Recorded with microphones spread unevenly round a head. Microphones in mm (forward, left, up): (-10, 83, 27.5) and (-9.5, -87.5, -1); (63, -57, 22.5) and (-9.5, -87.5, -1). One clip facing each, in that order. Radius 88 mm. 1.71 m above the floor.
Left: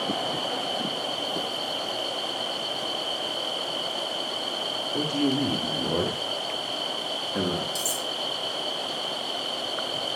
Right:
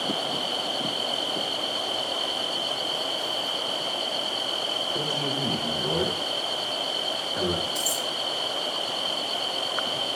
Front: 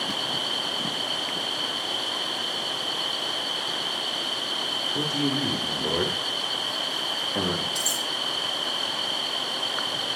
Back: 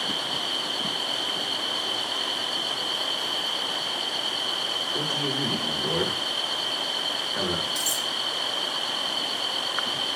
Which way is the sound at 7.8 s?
100° left.